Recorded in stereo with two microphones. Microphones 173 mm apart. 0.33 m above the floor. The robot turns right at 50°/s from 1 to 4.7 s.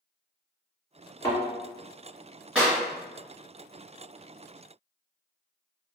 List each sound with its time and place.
1.2 s a thud: 20° left (ahead or behind), 1.6 m; by 1.4 s 10° left (ahead or behind), 1.6 m
2.5 s a clap: 5° right (ahead or behind), 1.7 m; by 2.8 s 15° right (ahead or behind), 1.7 m